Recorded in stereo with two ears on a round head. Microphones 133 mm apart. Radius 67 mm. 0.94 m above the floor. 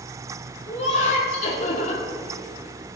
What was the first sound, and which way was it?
Laughter, 55° left (ahead or behind).